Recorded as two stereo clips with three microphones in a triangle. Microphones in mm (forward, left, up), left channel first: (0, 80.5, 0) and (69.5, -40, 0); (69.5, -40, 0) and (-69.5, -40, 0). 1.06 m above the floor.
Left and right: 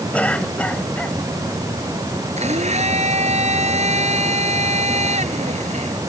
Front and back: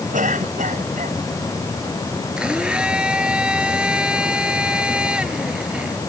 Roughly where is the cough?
Behind.